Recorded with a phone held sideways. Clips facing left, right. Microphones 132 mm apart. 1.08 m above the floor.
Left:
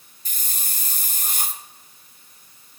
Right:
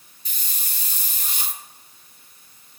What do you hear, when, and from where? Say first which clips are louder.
0.2 s a hiss: left 2 dB; 45° left (ahead or behind), 0.6 m